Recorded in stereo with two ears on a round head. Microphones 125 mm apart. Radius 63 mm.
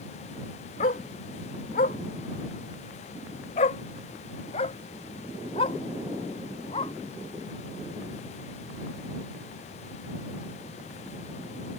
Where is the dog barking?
60° left (ahead or behind); by 6.9 s 35° left (ahead or behind).